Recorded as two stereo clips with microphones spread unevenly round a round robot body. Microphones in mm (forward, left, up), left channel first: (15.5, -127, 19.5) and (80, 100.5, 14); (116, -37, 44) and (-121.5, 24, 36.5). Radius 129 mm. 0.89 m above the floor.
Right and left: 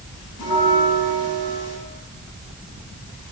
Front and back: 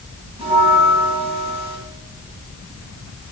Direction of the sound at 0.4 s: 125° right.